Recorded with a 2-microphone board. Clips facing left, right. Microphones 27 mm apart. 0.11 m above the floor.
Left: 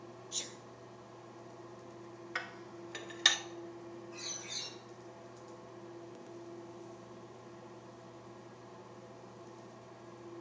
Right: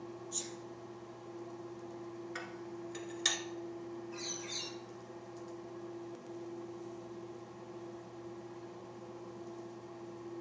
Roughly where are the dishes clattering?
Left.